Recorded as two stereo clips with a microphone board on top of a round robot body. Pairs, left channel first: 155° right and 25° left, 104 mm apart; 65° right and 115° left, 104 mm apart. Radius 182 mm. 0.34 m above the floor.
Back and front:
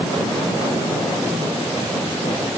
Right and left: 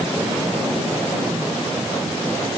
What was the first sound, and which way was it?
Only background noise.